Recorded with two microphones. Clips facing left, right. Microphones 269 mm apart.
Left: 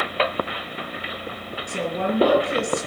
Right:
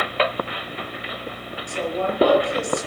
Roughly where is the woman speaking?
Left.